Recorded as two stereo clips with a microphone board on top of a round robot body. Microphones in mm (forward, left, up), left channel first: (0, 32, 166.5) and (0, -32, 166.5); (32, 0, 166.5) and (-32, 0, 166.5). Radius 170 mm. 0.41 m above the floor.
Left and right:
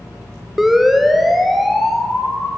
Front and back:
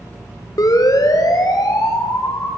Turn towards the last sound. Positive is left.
turn(degrees=0)